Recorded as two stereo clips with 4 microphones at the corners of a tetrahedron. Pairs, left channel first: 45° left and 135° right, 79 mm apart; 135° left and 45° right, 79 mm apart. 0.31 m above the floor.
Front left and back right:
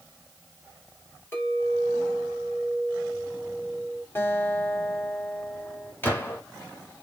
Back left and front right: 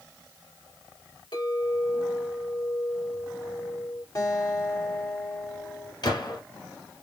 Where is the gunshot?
110° left, 1.6 m.